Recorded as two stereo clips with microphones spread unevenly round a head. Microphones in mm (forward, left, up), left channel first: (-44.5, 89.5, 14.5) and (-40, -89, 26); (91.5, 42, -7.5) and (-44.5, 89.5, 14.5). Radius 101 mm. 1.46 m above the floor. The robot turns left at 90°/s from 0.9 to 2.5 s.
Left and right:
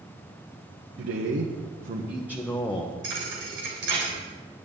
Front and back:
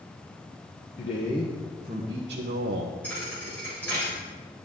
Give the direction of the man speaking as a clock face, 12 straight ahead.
2 o'clock.